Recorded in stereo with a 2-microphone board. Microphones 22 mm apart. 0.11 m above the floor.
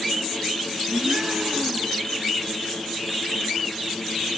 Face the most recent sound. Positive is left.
turn(degrees=-45)  # may be behind; listen again after turning